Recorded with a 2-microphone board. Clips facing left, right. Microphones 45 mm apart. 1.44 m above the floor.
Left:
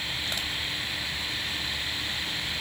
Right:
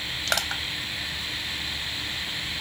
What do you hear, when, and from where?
0.3 s crushing: 80° right